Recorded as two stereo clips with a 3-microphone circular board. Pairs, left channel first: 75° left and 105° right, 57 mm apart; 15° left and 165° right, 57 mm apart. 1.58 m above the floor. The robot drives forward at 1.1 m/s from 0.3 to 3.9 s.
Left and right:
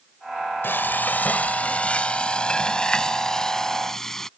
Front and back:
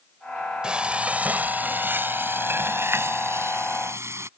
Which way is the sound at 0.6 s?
120° left.